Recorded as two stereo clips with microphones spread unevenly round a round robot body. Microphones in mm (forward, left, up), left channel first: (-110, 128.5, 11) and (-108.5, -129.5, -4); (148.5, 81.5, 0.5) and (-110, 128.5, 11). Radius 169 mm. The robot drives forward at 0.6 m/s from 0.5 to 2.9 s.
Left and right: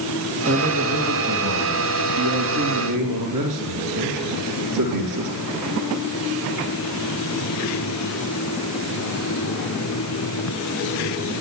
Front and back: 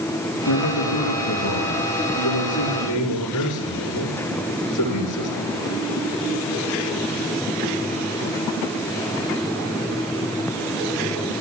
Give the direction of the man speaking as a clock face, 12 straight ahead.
2 o'clock.